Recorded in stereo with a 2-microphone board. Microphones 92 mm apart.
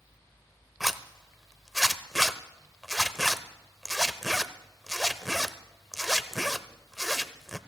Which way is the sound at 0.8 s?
Centre (ahead or behind).